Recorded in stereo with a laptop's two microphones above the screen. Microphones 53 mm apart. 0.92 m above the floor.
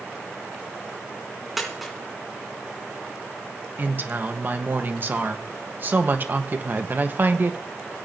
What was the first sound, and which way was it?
A dropped coin, centre (ahead or behind).